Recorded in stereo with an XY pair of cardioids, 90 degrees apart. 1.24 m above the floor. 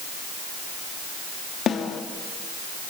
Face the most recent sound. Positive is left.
turn(degrees=70)